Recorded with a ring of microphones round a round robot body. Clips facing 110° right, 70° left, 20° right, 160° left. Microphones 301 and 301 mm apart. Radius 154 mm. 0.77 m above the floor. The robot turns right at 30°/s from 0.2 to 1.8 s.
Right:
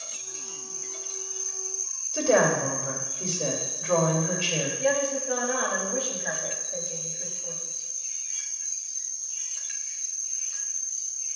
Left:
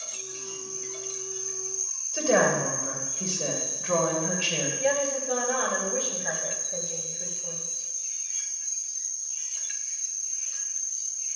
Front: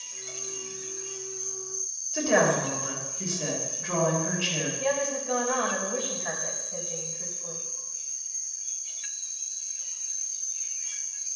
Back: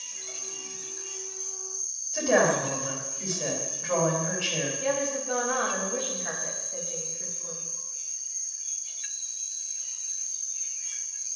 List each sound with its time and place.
0.0 s an insect: 150° right, 1.3 m; by 11.4 s 100° right, 1.3 m
2.1 s a woman speaking: 40° right, 3 m
4.8 s a woman speaking: 15° right, 4 m